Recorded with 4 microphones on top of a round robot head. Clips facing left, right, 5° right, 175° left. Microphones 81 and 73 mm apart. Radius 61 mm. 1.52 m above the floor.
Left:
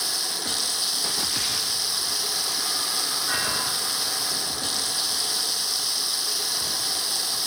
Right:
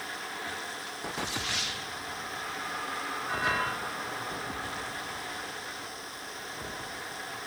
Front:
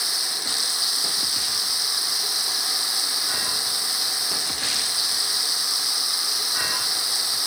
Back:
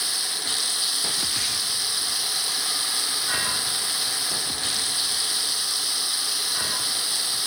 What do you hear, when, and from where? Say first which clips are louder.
0.0 s running water: left 3 dB, front 1 dB; 65° left